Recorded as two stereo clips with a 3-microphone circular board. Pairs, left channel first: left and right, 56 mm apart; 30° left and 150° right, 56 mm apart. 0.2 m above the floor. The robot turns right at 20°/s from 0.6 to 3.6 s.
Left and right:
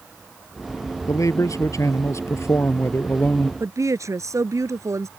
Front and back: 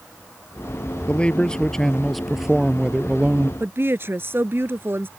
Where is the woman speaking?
105° right.